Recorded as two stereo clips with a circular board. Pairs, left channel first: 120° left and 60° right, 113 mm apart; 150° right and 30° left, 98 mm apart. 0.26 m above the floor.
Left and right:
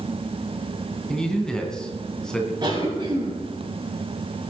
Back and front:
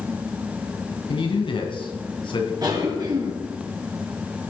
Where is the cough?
15° right, 4.5 m.